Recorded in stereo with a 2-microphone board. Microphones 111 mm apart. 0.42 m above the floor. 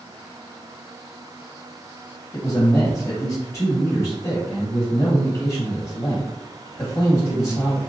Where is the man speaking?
25° left (ahead or behind), 1.5 m.